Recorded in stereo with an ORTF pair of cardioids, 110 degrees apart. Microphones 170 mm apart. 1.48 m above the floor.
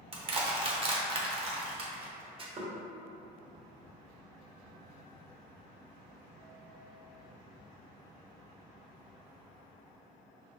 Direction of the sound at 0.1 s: 35° right.